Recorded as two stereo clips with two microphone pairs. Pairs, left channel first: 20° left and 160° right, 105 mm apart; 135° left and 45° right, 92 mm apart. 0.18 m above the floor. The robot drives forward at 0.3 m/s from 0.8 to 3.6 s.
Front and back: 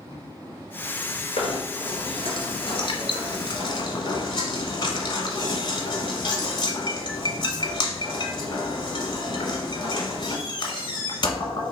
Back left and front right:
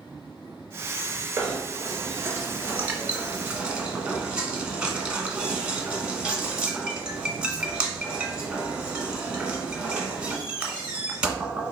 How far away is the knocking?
About 1.4 m.